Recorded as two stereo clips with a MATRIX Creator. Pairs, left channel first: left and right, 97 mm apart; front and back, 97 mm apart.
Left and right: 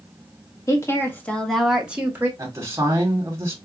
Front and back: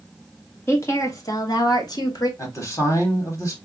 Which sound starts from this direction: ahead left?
A woman speaking, at 0.7 s.